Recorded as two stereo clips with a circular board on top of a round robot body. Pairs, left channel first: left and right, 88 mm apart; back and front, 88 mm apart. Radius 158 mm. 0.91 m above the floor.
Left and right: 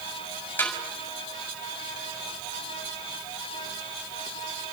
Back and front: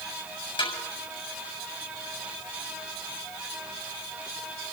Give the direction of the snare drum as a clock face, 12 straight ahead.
7 o'clock.